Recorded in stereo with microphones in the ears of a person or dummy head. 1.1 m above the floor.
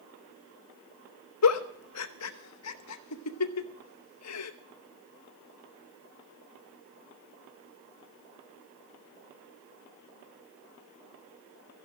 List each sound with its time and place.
1.4 s a giggle: 80° left, 0.8 m